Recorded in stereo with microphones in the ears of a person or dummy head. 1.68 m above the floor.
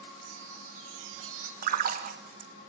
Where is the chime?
80° right, 1.7 m.